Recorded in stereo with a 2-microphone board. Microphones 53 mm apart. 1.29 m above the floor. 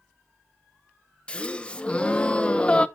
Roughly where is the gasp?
Left.